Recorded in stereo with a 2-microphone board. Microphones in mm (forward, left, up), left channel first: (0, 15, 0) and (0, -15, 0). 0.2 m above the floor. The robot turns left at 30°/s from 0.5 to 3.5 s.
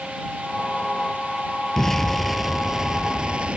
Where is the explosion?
15° left; by 3.6 s 40° right.